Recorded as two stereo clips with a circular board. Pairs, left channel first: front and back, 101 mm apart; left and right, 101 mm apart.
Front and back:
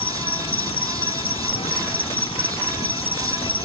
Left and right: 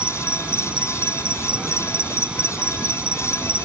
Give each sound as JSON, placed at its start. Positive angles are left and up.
{"t": 0.0, "sound": "an insect", "azimuth_deg": -10}